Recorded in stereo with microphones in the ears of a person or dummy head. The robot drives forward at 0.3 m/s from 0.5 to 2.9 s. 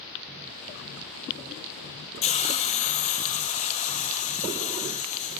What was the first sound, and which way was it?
A hiss, 35° left (ahead or behind).